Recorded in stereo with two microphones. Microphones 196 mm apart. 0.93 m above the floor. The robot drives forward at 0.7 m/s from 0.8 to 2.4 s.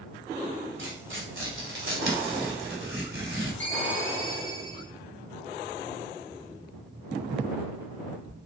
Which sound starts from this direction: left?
A ringtone, at 3.6 s.